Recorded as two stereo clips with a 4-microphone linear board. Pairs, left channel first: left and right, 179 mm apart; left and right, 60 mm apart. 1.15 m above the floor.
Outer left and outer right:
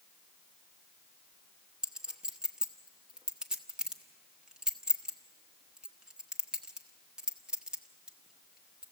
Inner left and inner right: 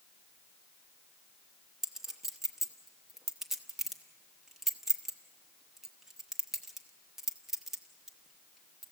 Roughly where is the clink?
Centre.